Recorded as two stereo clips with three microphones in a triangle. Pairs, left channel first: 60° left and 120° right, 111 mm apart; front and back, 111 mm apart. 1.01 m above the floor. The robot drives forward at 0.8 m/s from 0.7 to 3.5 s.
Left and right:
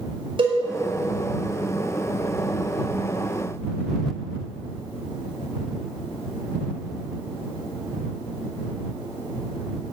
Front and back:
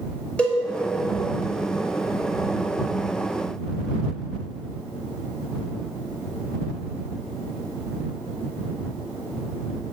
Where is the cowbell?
80° right, 5 m.